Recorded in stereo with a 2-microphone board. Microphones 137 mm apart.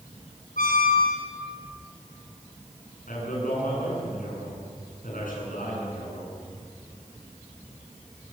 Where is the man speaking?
80° left, 9 m.